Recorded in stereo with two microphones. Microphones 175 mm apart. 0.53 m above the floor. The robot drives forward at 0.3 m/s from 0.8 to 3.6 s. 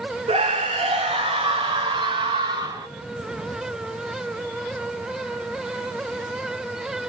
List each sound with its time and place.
0.3 s a scream: 35° right (ahead or behind), 0.9 m; by 2.9 s 25° right (ahead or behind), 1.4 m